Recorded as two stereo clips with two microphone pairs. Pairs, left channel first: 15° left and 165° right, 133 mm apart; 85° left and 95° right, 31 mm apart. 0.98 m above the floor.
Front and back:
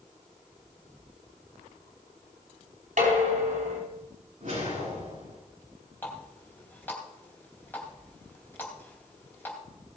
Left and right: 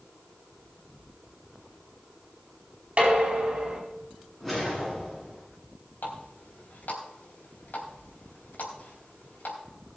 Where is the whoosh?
175° left, 8.5 m.